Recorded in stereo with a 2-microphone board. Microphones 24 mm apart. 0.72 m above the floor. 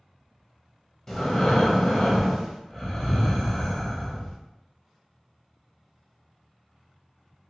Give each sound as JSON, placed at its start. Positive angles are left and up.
{"t": 1.1, "sound": "breathing", "side_deg": 20, "distance_m": 0.7}